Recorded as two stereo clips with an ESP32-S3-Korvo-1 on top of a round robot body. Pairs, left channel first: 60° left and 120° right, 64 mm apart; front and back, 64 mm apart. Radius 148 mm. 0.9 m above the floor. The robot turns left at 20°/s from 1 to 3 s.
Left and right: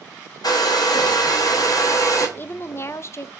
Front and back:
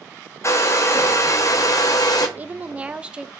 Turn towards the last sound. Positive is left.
turn(degrees=105)